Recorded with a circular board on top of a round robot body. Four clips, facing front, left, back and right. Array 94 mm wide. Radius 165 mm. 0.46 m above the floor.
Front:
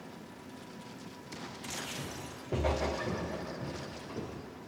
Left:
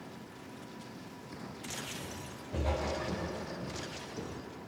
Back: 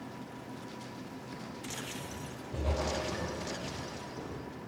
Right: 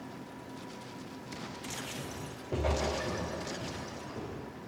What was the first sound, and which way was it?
Footsteps, 45° right.